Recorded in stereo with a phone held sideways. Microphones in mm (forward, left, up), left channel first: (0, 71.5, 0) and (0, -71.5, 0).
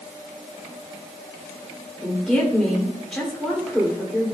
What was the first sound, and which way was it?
A woman speaking, 5° left (ahead or behind).